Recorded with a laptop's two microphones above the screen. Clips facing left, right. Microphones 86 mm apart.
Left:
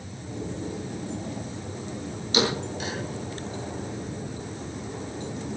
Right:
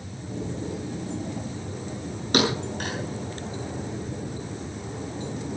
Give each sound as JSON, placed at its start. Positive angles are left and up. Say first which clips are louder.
{"t": 2.3, "sound": "a thud", "louder": "right 2 dB", "side_deg": -60, "distance_m": 7.5}